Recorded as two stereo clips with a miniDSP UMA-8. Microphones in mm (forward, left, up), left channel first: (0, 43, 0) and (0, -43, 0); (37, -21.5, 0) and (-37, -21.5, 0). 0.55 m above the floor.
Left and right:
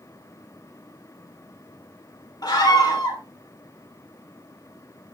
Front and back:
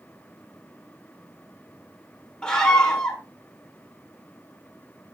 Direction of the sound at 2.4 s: 75° left.